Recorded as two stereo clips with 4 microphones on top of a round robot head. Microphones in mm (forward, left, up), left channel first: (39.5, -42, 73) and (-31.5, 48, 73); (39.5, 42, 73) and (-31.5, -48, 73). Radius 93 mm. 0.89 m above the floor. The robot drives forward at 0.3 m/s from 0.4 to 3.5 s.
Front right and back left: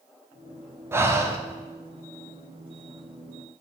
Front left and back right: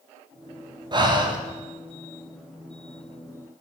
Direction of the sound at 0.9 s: 170° right.